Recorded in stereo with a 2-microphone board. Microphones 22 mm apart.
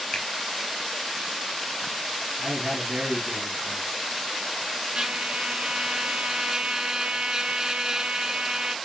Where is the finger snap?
30° left (ahead or behind), 1.3 m.